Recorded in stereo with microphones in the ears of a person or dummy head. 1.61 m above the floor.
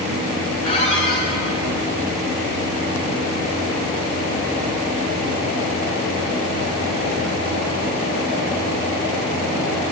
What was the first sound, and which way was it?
A squeak, 40° left (ahead or behind).